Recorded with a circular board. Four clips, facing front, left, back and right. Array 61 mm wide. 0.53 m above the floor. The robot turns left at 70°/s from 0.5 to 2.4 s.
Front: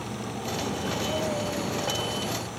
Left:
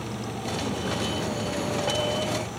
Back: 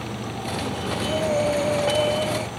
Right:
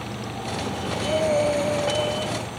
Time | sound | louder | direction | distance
0.9 | breathing | right 7 dB, back 8 dB | 90° right | ?